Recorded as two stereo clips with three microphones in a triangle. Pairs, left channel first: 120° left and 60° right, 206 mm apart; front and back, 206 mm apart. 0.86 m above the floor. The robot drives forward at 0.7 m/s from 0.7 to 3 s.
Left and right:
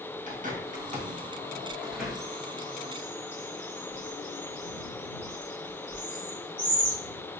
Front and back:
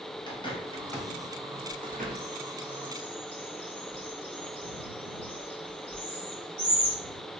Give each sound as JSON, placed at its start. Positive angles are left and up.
{"t": 0.3, "sound": "a bird", "azimuth_deg": -55, "distance_m": 0.8}